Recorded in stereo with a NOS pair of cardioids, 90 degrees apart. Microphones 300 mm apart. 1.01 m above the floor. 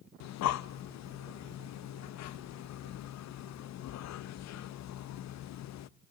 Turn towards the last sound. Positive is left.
turn(degrees=65)